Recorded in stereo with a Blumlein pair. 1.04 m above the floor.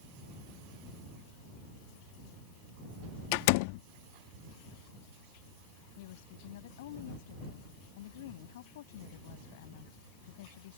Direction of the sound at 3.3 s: 45° left.